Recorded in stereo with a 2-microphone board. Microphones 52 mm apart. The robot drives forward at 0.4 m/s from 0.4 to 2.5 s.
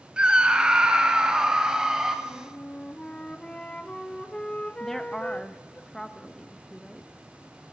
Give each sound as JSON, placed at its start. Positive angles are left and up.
{"t": 0.2, "sound": "a scream", "side_deg": -20, "distance_m": 1.0}
{"t": 2.2, "sound": "a flute", "side_deg": 20, "distance_m": 0.6}
{"t": 4.8, "sound": "a woman speaking", "side_deg": 10, "distance_m": 0.7}